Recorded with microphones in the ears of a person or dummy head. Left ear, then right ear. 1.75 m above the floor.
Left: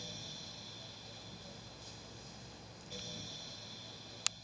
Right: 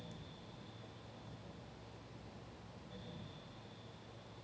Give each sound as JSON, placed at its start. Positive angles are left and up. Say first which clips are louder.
{"t": 0.0, "sound": "a fan", "louder": "left 9 dB", "side_deg": 85}